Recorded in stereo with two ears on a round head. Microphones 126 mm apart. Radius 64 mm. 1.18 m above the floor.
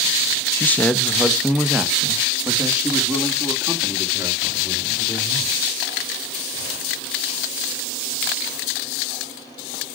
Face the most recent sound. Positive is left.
turn(degrees=-15)  # may be behind; listen again after turning